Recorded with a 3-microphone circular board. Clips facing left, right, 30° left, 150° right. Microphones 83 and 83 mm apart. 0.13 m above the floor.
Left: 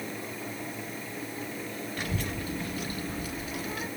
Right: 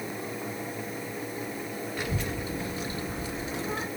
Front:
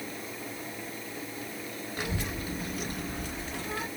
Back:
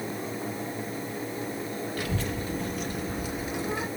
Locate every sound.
2.0 s a child speaking: 20° right, 1.3 m; by 3.9 s 105° right, 1.2 m